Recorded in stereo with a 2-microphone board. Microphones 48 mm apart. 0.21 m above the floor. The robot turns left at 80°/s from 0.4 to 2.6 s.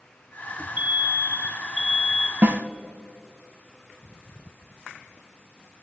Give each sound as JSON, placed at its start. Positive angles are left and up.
{"t": 0.8, "sound": "an alarm", "azimuth_deg": -55, "distance_m": 1.0}
{"t": 2.4, "sound": "a snare drum", "side_deg": -45, "distance_m": 0.6}